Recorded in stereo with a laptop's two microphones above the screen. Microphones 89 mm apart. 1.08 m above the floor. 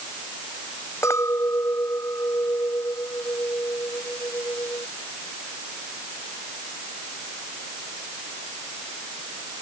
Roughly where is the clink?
Left.